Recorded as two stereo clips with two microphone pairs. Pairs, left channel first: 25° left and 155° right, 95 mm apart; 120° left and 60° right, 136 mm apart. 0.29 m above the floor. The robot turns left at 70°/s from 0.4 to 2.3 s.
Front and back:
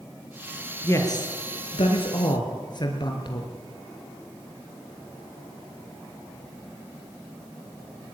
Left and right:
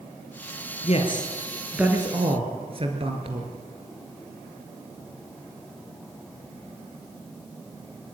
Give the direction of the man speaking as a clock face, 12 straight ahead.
9 o'clock.